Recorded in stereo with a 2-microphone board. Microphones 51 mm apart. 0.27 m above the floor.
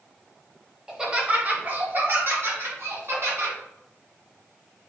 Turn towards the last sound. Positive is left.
turn(degrees=-60)  # may be behind; listen again after turning